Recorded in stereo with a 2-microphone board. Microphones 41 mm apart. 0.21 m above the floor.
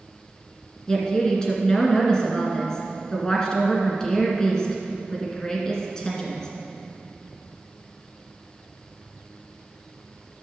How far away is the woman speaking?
About 2 m.